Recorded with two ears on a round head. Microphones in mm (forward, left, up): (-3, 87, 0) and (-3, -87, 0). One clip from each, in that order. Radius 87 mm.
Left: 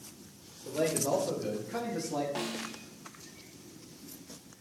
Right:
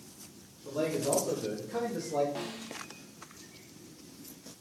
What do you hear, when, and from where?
0.7 s a man speaking: 5° left (ahead or behind), 3 m; by 2.2 s 15° left (ahead or behind), 1.2 m
2.4 s a snare drum: 20° left (ahead or behind), 0.6 m